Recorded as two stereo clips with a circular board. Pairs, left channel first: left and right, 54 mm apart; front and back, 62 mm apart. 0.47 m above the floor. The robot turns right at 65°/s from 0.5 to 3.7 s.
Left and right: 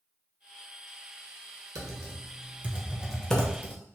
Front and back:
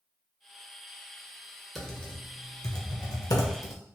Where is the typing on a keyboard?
90° right, 0.6 m; by 3.7 s 35° left, 0.6 m.